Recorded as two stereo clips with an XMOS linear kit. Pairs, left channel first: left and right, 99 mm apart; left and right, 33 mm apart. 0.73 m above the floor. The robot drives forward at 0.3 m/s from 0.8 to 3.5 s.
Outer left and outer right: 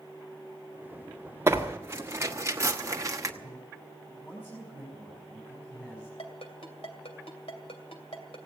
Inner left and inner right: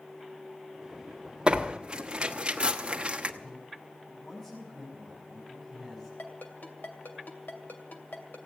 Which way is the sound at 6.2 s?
75° left (ahead or behind).